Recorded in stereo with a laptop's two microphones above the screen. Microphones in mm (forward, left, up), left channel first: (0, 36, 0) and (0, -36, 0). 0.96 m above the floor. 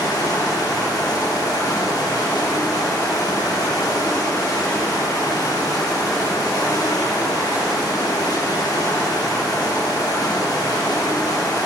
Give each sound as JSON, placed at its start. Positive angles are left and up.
{"t": 0.0, "sound": "running water", "side_deg": 60, "distance_m": 1.0}